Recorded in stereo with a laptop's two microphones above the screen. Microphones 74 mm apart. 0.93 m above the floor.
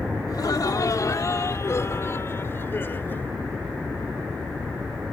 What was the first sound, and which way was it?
Laughter, 60° left (ahead or behind).